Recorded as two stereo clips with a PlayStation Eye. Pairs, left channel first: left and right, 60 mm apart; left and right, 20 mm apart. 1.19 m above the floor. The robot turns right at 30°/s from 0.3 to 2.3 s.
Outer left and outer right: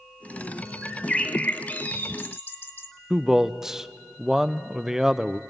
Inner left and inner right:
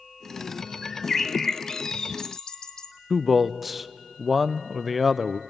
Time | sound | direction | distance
0.8 | a bird | 15° left | 1.2 m
3.1 | a man speaking | 10° right (ahead or behind) | 0.6 m